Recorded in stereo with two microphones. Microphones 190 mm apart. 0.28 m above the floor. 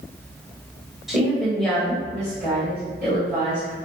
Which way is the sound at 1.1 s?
Centre (ahead or behind).